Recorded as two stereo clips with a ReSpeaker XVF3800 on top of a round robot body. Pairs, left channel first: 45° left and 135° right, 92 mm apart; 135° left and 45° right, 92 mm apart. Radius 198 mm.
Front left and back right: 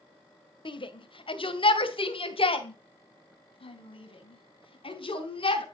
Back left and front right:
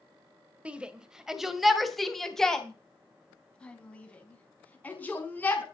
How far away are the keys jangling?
No keys jangling in this recording.